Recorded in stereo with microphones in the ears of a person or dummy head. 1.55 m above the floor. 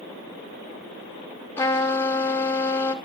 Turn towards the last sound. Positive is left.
turn(degrees=15)  # may be behind; listen again after turning